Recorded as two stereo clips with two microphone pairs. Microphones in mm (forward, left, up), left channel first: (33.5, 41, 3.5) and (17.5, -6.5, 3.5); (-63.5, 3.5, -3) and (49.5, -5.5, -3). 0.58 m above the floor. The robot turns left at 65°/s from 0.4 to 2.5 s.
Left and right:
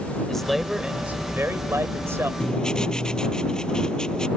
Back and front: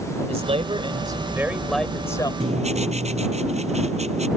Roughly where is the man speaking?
Ahead.